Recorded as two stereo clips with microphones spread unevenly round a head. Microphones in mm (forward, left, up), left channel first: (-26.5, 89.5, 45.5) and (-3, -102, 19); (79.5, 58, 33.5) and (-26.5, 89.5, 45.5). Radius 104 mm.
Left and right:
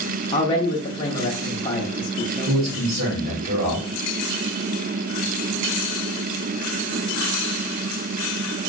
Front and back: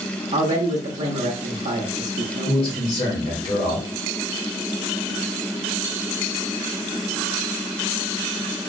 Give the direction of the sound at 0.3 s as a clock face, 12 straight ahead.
7 o'clock.